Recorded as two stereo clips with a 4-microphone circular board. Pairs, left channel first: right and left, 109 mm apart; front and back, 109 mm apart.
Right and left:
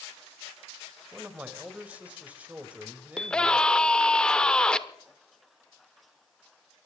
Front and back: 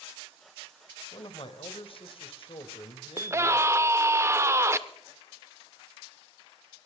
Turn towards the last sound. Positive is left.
turn(degrees=-165)